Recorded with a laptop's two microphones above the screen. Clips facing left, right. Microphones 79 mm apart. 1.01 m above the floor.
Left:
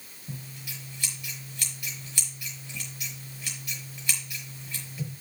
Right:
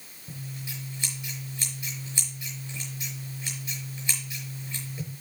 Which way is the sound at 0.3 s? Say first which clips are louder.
Right 2 dB; 25° right (ahead or behind).